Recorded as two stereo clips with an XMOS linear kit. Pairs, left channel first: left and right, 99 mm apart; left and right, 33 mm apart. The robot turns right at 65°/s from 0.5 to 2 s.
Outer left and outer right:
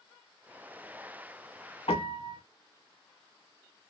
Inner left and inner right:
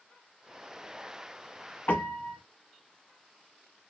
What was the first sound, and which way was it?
A piano, 80° left.